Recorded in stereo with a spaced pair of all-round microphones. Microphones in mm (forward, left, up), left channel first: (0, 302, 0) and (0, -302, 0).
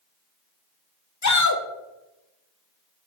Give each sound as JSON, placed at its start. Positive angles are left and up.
{"t": 1.2, "sound": "a shout", "side_deg": 30, "distance_m": 0.6}